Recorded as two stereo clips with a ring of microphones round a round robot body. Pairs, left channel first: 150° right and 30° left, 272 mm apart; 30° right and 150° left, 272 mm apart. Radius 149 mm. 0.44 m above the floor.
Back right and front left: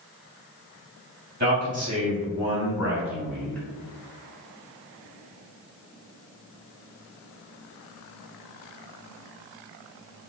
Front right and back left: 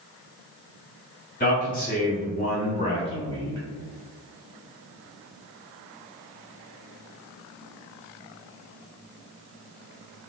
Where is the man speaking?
Straight ahead, 1.7 m; by 3.6 s 75° right, 1.4 m.